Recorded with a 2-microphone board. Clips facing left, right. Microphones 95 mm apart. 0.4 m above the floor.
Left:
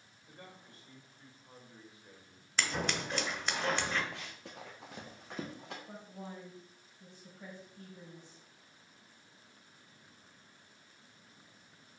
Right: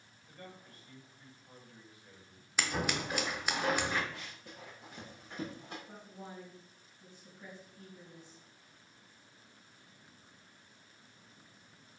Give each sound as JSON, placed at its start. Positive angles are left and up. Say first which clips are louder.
{"t": 0.3, "sound": "a man speaking", "louder": "right 2 dB", "side_deg": 25, "distance_m": 2.0}
{"t": 2.6, "sound": "scissors", "louder": "right 1 dB", "side_deg": -10, "distance_m": 1.0}
{"t": 4.1, "sound": "running footsteps", "louder": "left 2 dB", "side_deg": 75, "distance_m": 1.3}
{"t": 5.9, "sound": "a woman speaking", "louder": "left 2 dB", "side_deg": 65, "distance_m": 3.0}